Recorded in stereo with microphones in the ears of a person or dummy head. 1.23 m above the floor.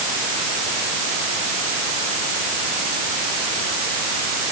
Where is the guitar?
No guitar in this recording.